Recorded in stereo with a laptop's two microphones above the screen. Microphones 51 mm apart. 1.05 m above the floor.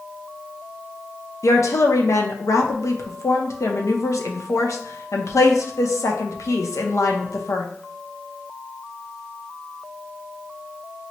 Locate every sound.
1.4 s a woman speaking: 75° left (ahead or behind), 0.6 m